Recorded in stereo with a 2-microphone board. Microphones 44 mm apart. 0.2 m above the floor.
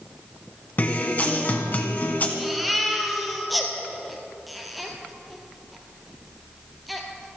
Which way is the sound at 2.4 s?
Centre (ahead or behind).